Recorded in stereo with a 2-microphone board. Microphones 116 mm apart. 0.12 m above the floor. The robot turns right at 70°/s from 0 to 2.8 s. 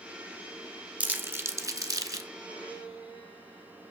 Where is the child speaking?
I don't hear a child speaking.